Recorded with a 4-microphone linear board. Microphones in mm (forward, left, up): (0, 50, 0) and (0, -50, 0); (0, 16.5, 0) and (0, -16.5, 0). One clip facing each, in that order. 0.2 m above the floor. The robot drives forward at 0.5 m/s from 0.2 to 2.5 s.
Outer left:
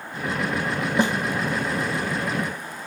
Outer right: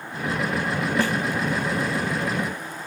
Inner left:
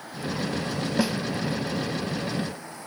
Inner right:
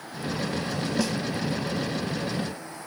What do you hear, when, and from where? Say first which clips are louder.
1.0 s a snare drum: outer left 3 dB, inner left 3 dB; 20° left (ahead or behind), 0.5 m